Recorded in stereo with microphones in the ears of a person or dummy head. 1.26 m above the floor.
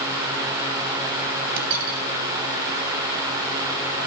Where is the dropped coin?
75° right (ahead or behind), 3 m.